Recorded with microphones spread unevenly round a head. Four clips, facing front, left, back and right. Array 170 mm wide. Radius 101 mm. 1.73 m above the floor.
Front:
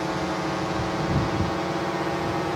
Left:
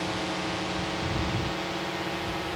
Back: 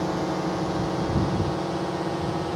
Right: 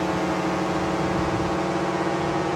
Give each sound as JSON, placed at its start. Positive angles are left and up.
{"t": 0.0, "sound": "a drone", "azimuth_deg": -100}